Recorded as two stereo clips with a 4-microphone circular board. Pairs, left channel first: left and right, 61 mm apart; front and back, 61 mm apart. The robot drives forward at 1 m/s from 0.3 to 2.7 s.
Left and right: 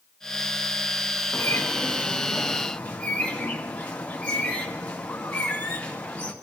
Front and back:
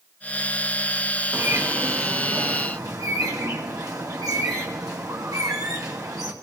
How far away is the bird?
About 1.0 m.